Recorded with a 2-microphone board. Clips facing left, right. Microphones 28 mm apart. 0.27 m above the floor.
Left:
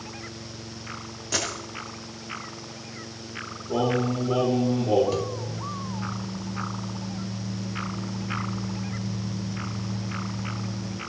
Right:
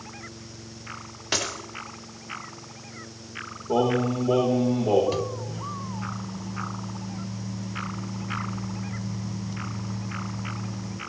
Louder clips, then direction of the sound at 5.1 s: Left 1 dB; 15° right (ahead or behind).